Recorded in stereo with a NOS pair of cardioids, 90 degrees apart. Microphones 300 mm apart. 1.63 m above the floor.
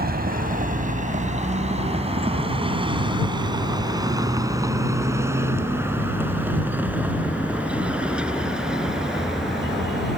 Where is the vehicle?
30° right; by 10.2 s straight ahead.